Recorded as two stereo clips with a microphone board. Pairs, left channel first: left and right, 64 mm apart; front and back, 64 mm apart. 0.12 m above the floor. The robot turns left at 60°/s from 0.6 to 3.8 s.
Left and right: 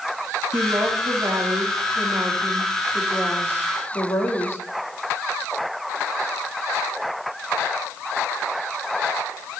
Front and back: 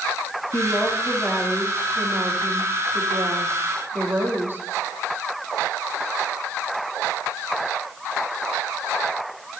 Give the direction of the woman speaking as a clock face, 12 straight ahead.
1 o'clock.